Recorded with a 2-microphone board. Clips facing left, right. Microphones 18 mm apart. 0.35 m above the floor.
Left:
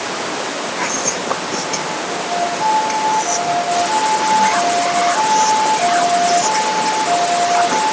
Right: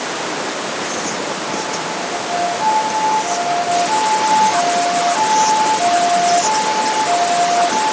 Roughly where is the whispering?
Left.